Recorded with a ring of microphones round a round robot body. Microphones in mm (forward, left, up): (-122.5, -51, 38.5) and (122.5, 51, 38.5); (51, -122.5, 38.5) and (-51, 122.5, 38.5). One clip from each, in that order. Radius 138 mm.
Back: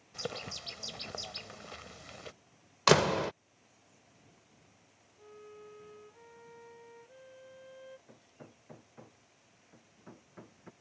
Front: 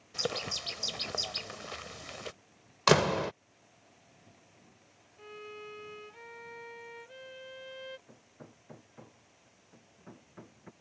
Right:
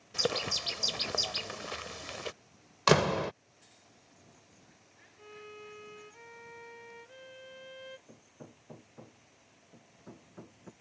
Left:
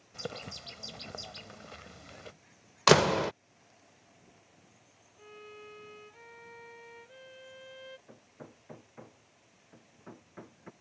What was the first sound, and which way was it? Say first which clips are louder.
A bird: front 6 dB, right 11 dB; 45° right.